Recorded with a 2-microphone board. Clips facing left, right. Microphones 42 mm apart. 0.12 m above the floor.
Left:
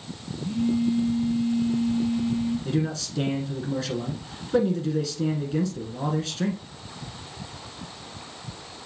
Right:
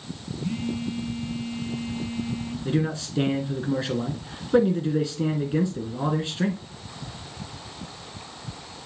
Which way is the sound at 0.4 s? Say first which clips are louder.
Left 6 dB; 55° right (ahead or behind).